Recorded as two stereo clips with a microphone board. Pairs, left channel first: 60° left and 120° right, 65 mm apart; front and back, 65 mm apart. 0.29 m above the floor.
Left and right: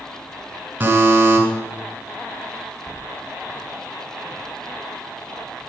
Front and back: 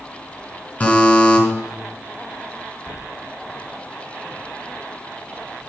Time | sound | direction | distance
0.8 | a buzzer | 65° right | 3 m